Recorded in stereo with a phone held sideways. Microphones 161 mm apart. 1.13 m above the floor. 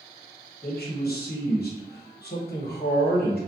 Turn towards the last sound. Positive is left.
turn(degrees=70)  # may be behind; listen again after turning